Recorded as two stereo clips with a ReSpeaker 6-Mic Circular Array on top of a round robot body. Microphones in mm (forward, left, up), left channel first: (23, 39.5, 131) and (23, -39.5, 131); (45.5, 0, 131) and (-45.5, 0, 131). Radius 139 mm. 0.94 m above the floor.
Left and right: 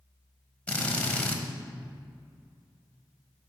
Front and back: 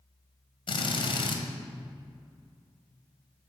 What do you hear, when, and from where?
0.7 s a drill: 15° left, 1.1 m